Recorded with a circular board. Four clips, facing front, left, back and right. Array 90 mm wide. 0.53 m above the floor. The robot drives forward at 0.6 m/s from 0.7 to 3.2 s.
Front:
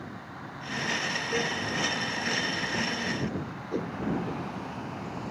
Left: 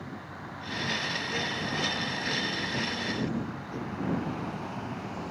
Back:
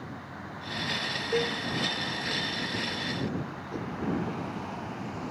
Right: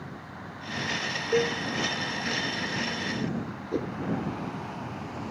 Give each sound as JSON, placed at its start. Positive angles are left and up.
{"t": 1.3, "sound": "a cowbell", "azimuth_deg": -105}
{"t": 3.7, "sound": "a whoosh", "azimuth_deg": -60}